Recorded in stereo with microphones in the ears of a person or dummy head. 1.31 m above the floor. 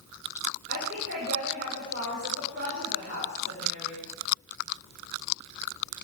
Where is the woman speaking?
45° right (ahead or behind), 5 m.